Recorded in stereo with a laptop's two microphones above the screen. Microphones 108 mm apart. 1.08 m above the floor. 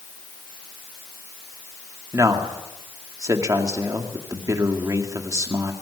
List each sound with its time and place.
2.1 s a man speaking: 30° right (ahead or behind), 2 m